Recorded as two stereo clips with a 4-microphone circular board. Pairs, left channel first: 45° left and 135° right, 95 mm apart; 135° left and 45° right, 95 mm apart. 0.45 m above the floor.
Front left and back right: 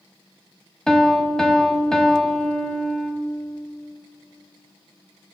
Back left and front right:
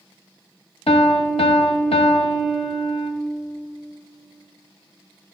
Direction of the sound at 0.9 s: 130° left.